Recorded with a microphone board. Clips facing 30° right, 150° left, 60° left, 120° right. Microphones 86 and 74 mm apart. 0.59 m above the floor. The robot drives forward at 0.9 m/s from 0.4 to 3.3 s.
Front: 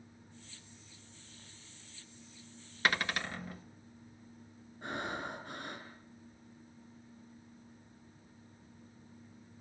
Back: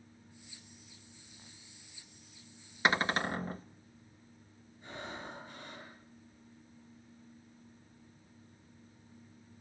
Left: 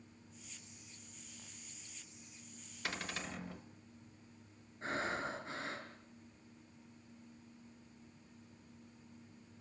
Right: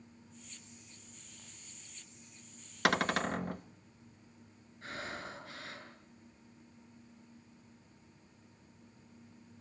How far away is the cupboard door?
About 0.6 m.